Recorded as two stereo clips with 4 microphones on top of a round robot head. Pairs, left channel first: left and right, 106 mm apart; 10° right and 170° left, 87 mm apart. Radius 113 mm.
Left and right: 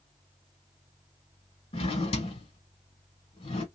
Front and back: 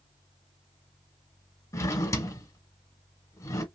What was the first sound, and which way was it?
A drawer, 50° left.